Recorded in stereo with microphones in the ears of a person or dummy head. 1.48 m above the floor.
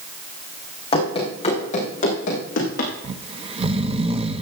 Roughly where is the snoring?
Right.